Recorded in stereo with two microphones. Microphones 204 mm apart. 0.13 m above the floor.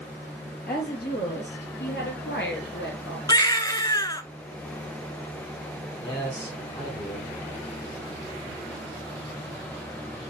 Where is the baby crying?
20° left (ahead or behind), 0.7 m.